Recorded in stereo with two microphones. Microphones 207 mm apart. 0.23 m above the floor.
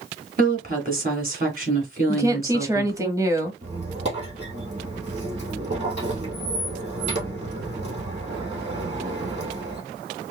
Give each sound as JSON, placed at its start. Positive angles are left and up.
{"t": 0.4, "sound": "a woman speaking", "side_deg": -40, "distance_m": 2.5}
{"t": 2.1, "sound": "a woman speaking", "side_deg": -15, "distance_m": 0.9}
{"t": 3.6, "sound": "a squeak", "side_deg": -30, "distance_m": 2.5}